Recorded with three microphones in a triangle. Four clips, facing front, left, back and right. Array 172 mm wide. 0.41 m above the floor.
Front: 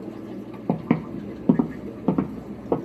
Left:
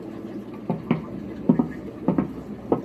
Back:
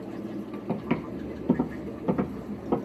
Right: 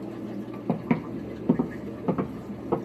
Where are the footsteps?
Straight ahead, 0.5 m; by 2.8 s 50° left, 1.4 m.